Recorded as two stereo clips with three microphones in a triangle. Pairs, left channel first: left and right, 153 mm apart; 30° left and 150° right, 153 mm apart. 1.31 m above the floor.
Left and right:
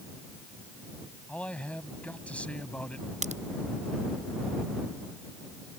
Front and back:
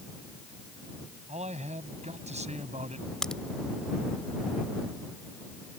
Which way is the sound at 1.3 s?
170° left.